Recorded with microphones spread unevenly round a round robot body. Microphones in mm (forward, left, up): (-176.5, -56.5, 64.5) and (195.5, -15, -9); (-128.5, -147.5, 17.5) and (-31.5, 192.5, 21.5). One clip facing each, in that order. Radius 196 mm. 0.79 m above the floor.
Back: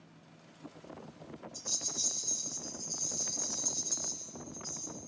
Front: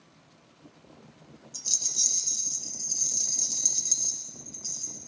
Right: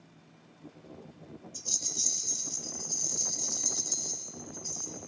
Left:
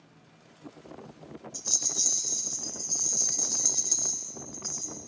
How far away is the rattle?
About 1.4 m.